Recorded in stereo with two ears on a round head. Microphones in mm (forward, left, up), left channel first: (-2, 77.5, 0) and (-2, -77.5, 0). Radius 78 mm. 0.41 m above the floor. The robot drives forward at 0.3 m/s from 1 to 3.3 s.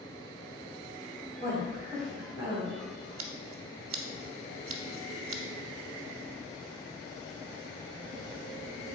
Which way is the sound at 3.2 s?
85° right.